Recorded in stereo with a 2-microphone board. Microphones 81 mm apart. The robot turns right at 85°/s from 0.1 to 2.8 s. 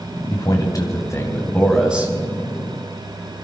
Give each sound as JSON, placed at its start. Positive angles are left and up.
{"t": 0.3, "sound": "a man speaking", "azimuth_deg": 60, "distance_m": 2.0}